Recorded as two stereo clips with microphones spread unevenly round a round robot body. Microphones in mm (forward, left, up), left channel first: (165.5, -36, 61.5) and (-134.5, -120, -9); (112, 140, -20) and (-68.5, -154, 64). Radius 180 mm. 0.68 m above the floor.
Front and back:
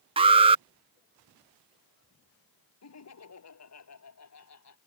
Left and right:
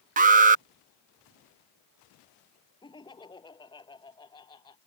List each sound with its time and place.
0.2 s an alarm: 165° left
2.8 s laughter: 20° right